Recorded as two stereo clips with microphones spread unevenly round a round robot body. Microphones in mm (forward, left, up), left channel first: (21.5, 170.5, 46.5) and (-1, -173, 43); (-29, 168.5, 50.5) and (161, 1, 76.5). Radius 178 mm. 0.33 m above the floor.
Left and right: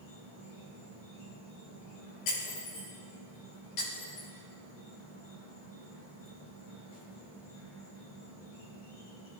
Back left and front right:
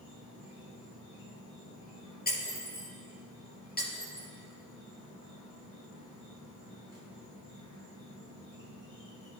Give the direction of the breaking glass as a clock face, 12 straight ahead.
9 o'clock.